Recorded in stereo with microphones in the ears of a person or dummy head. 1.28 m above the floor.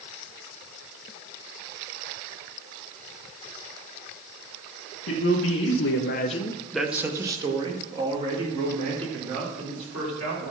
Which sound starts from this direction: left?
A man speaking, at 5.1 s.